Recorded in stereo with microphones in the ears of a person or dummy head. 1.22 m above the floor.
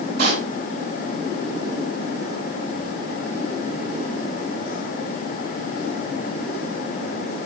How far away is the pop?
About 8.5 m.